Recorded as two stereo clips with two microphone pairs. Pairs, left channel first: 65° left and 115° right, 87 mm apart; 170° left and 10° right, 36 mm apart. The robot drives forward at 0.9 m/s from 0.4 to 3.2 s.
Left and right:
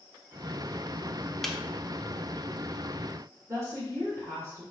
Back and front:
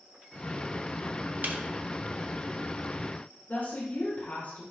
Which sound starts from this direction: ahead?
A snare drum, at 1.4 s.